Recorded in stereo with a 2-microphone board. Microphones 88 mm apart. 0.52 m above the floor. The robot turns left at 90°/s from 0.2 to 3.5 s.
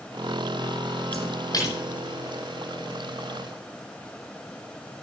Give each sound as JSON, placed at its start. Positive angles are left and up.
{"t": 1.1, "sound": "a splash", "side_deg": 85, "distance_m": 10.0}